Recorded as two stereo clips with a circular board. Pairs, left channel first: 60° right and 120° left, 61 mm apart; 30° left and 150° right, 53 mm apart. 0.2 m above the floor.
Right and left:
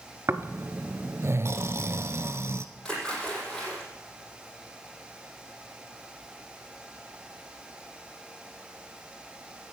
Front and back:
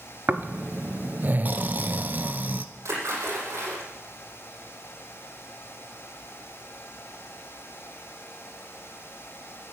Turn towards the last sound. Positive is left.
turn(degrees=-135)